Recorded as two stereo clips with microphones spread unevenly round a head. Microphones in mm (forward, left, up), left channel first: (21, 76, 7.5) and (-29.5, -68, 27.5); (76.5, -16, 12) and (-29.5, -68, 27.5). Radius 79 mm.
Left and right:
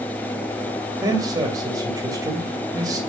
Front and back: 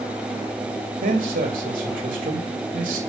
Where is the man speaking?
Straight behind, 2.5 m.